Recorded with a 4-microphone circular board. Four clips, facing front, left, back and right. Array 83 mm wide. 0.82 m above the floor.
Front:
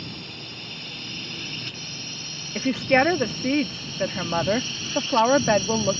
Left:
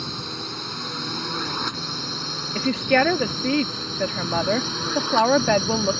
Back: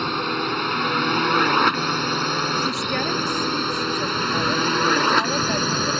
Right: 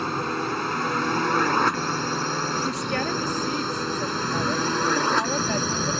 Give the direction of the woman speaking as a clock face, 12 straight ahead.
10 o'clock.